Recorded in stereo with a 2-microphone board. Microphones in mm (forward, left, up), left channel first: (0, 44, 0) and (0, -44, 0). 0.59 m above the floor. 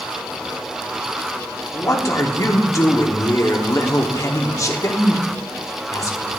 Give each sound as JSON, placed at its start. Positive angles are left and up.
{"t": 1.7, "sound": "a man speaking", "side_deg": 40, "distance_m": 1.0}